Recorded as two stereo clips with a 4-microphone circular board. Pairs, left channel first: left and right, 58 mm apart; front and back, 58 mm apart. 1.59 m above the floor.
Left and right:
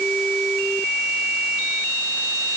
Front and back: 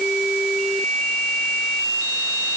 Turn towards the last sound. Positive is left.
No sound to turn to.